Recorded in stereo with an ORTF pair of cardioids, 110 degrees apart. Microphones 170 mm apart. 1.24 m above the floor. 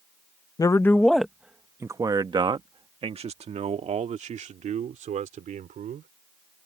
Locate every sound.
0.6 s a man speaking: 20° left; by 6.1 s 50° right